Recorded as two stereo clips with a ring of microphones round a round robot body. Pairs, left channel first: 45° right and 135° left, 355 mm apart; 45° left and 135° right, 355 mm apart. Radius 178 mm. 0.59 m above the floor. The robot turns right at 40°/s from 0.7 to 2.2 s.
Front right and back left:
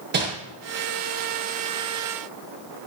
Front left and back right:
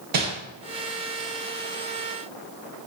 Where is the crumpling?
165° right, 9.5 m.